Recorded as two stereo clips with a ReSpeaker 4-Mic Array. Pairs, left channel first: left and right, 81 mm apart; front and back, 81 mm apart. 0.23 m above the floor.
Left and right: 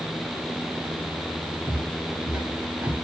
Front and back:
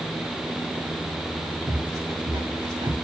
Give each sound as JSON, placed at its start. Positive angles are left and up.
{"t": 1.7, "sound": "footsteps", "azimuth_deg": 180, "distance_m": 3.0}